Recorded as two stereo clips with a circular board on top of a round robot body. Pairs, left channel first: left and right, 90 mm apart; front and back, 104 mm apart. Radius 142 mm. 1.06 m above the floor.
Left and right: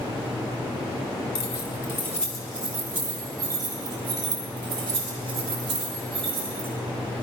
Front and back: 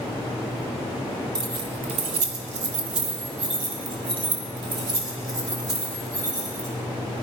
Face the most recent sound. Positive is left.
turn(degrees=-125)